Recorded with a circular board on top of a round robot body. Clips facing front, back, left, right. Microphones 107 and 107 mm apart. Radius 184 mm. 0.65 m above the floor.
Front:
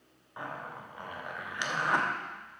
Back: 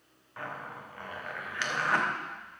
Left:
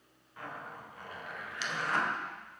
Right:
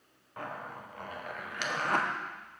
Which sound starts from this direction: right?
A zipper, at 0.4 s.